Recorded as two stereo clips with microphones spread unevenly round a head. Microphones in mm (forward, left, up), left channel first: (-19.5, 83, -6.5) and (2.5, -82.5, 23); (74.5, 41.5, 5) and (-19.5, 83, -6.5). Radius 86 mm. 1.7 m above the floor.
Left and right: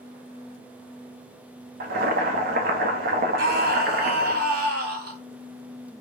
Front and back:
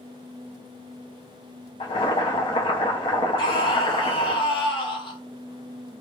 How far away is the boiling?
About 0.6 m.